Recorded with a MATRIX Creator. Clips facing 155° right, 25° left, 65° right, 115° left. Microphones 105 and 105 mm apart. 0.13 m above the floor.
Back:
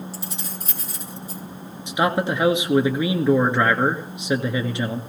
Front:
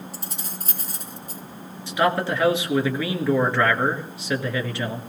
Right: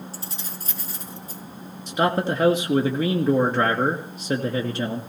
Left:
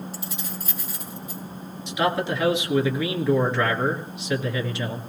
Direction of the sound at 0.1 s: 15° right.